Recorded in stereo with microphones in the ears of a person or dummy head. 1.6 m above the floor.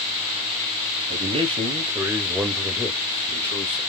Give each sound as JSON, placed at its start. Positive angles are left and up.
{"t": 1.1, "sound": "a man speaking", "side_deg": -40, "distance_m": 1.1}